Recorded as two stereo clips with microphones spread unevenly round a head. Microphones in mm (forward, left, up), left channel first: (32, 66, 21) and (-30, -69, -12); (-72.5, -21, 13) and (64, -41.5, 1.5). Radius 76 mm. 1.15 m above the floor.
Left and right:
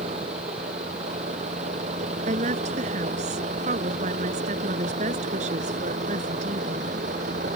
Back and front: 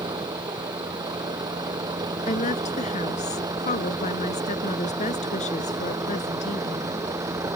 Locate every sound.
0.0 s a vehicle: 70° right; by 7.6 s 75° right
2.3 s a woman speaking: 155° right